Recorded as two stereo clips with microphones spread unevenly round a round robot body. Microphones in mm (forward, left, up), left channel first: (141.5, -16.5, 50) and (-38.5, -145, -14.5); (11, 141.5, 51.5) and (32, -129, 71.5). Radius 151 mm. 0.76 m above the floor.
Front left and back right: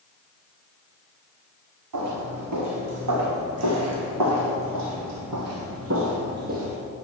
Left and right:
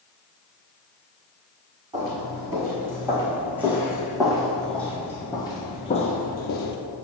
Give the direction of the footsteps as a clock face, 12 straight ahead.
5 o'clock.